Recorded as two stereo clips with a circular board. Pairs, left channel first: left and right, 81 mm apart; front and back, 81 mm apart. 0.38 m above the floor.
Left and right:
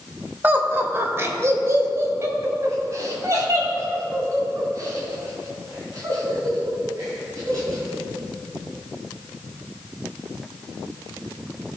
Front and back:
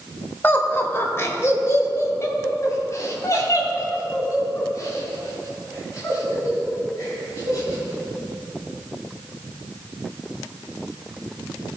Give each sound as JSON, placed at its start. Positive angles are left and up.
{"t": 0.4, "sound": "laughter", "azimuth_deg": -40, "distance_m": 0.9}